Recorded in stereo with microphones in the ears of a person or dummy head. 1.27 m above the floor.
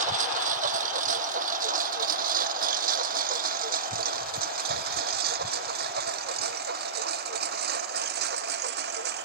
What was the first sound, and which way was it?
A lawn mower, 45° right (ahead or behind).